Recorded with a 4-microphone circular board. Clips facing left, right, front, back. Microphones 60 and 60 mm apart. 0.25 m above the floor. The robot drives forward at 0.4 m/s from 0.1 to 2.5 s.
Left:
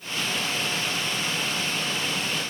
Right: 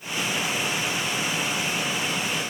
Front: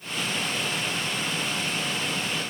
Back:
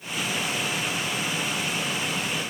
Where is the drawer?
I don't hear a drawer.